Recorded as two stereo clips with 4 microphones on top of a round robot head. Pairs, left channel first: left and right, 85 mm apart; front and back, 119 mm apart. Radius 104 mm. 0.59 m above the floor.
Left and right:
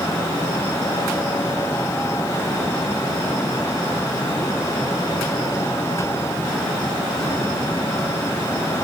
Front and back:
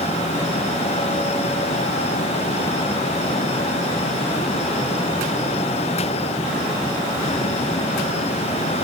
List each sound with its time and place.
Only background noise.